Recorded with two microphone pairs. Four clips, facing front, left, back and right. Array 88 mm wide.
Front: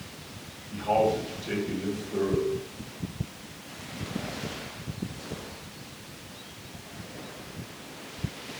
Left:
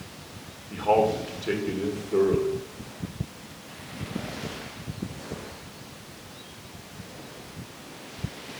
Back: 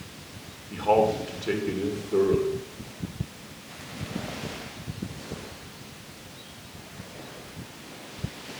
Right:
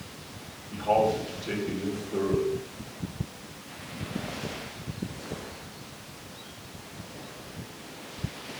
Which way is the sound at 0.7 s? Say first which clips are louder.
Left 2 dB, back 3 dB; 135° left.